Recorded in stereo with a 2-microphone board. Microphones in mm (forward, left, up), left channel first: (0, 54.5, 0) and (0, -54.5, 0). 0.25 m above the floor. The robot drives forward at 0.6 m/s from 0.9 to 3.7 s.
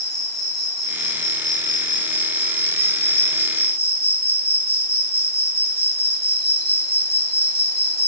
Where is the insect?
30° right (ahead or behind), 1.6 m; by 8.1 s 65° right (ahead or behind), 0.8 m.